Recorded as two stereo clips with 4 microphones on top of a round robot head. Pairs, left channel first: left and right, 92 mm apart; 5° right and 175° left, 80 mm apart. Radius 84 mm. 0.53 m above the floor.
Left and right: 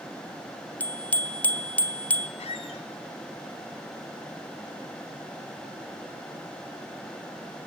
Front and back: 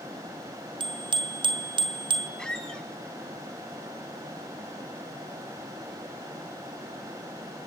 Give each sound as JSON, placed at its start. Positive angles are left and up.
{"t": 0.8, "sound": "a bicycle bell", "azimuth_deg": 165, "distance_m": 2.5}
{"t": 2.4, "sound": "a squeak", "azimuth_deg": 75, "distance_m": 3.0}